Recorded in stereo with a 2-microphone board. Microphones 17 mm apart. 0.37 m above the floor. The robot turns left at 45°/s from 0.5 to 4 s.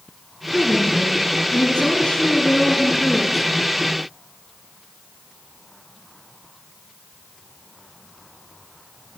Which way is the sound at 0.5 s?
135° left.